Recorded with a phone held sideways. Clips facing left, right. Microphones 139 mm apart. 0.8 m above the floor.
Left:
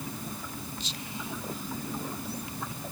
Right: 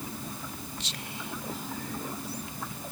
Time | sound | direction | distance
0.8 | whispering | 75° right (ahead or behind) | ?